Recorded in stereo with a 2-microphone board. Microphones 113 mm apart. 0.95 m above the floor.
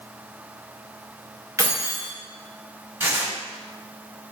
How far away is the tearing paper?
About 1.0 m.